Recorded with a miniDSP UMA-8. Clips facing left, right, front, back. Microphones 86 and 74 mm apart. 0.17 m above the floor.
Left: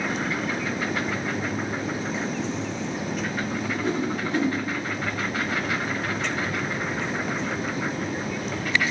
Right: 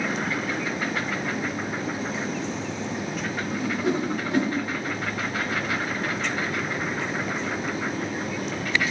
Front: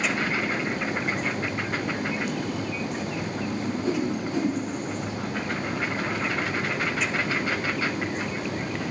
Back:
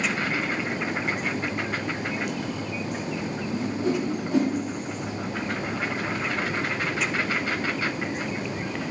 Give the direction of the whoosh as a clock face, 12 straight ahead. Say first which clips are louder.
Right 3 dB, back 1 dB; 6 o'clock.